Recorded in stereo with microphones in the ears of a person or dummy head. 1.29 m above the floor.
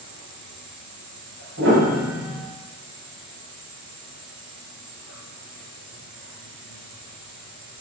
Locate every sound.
0.0 s an insect: 75° right (ahead or behind), 4.5 m
1.6 s a piano: 65° right (ahead or behind), 6.5 m